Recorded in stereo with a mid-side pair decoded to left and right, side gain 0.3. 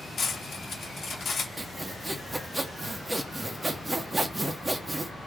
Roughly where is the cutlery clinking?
Left.